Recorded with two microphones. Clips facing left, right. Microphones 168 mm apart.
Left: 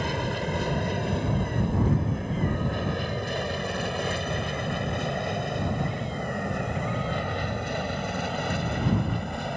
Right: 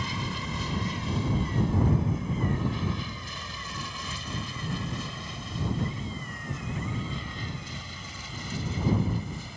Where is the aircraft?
60° left (ahead or behind); by 9.6 s 70° left (ahead or behind).